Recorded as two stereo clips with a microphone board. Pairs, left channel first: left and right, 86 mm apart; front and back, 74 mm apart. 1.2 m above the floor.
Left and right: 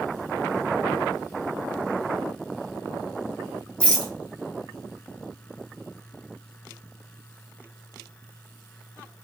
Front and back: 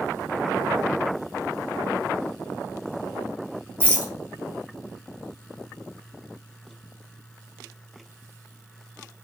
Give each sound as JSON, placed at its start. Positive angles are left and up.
{"t": 3.8, "sound": "a rattle", "azimuth_deg": 160, "distance_m": 0.7}